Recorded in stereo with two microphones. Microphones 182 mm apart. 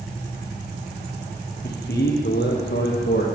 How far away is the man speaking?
About 3.5 m.